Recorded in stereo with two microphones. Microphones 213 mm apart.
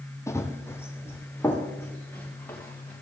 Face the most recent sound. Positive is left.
turn(degrees=10)  # may be behind; listen again after turning